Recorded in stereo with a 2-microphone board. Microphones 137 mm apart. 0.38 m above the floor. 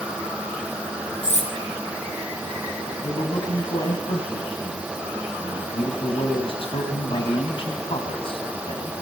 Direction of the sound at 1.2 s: 60° left (ahead or behind).